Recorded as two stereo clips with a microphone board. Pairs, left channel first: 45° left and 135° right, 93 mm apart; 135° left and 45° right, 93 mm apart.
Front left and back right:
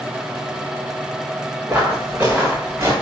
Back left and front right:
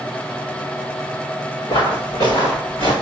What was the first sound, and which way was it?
Footsteps, 155° left.